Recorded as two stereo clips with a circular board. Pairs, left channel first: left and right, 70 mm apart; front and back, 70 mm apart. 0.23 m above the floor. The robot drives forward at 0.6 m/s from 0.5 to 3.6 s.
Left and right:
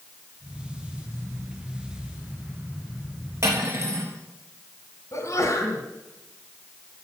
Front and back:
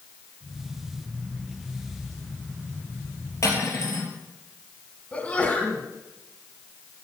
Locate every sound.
3.4 s cutlery clinking: 45° right, 3.5 m; by 4.1 s 50° right, 3.5 m
5.1 s a sneeze: 70° left, 2.5 m